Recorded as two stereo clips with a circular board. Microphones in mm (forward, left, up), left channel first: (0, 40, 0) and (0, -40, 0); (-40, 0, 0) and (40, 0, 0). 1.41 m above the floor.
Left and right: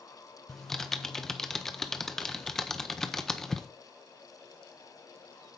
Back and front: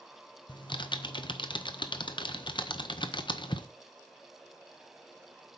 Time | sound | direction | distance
0.5 | typing on a keyboard | 175° left | 0.7 m